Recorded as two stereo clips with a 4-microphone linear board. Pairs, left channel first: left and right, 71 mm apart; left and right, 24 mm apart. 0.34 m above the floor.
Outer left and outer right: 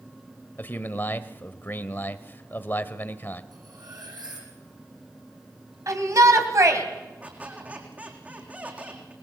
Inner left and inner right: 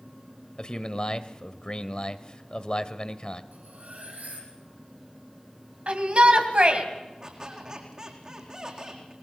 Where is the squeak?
25° right (ahead or behind), 4 m.